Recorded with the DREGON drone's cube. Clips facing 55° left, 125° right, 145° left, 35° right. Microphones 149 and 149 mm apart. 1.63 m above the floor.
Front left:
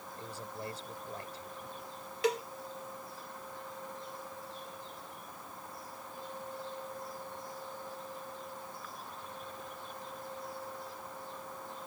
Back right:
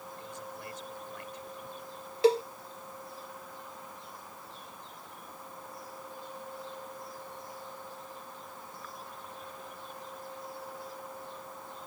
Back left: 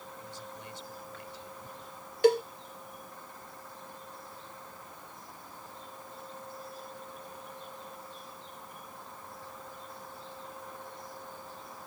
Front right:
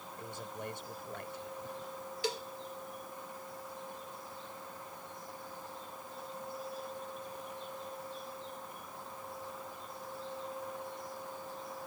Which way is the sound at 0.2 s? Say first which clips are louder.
Front left 4 dB, front right 6 dB; straight ahead.